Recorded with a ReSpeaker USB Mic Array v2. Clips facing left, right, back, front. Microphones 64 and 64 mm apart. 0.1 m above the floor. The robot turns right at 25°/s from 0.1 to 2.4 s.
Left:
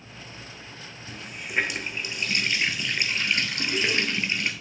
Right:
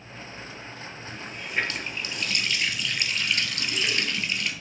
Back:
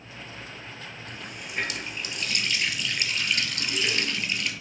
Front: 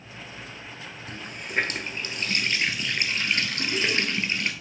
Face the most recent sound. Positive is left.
turn(degrees=40)